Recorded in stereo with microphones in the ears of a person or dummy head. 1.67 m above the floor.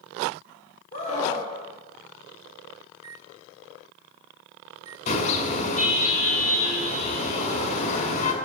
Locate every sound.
0.9 s a scream: 45° left (ahead or behind), 6 m
2.9 s a microwave: 20° right (ahead or behind), 0.8 m
5.1 s a car horn: 40° left (ahead or behind), 5.5 m